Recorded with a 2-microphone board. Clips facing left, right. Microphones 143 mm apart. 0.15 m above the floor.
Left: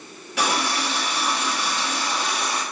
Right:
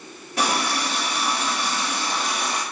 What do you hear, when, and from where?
0.4 s a running tap: 45° right (ahead or behind), 1.3 m